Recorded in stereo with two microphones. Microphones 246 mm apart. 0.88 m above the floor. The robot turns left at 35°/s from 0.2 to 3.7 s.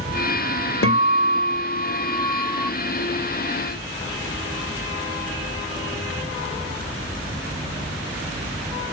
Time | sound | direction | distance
0.8 | a guitar | 70° left | 1.3 m